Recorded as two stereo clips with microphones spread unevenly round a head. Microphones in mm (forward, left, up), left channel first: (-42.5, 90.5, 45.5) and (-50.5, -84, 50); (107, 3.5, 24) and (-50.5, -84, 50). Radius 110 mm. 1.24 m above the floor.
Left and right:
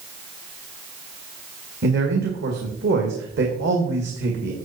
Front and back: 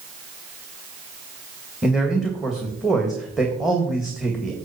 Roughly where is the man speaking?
Ahead right.